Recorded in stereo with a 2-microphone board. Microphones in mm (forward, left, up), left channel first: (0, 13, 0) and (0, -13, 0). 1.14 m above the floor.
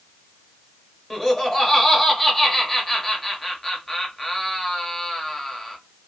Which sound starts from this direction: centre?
Laughter, at 1.1 s.